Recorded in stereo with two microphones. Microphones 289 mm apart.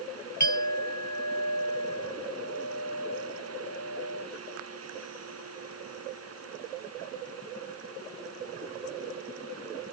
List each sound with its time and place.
0.4 s a clink: 70° left (ahead or behind)